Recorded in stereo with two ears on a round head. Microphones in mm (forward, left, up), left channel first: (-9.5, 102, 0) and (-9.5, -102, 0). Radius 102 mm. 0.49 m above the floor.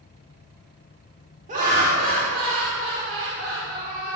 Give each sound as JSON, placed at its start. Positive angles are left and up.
{"t": 1.5, "sound": "laughter", "side_deg": -35, "distance_m": 1.5}